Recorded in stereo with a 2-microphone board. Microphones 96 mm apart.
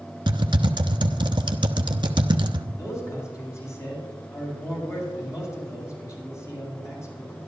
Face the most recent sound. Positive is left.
turn(degrees=30)  # may be behind; listen again after turning